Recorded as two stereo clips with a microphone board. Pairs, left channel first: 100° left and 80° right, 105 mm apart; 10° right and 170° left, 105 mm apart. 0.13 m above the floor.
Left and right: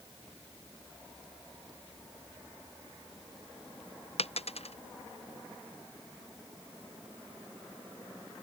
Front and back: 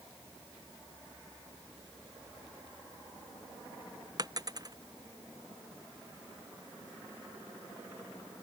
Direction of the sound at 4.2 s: 115° left.